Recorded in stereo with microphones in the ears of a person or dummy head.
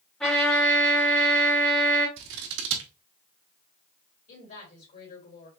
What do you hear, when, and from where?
0.2 s a trumpet: centre (ahead or behind), 1.9 m
2.2 s scissors: 75° right (ahead or behind), 1.1 m
4.3 s a woman speaking: 45° left (ahead or behind), 3 m